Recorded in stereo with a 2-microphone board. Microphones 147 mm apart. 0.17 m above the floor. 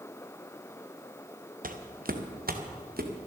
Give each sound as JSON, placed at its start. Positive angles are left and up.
{"t": 1.6, "sound": "footsteps", "side_deg": -65, "distance_m": 1.6}